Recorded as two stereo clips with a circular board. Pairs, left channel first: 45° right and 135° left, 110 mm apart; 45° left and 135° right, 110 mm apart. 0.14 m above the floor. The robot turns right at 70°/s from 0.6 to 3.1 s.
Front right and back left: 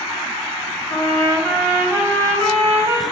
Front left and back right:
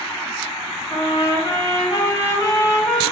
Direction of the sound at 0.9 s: 5° right.